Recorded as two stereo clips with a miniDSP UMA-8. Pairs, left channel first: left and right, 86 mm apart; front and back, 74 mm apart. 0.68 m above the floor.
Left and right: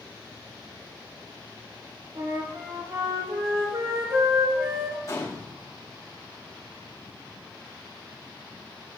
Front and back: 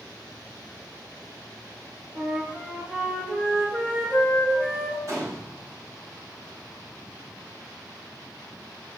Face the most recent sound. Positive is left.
turn(degrees=140)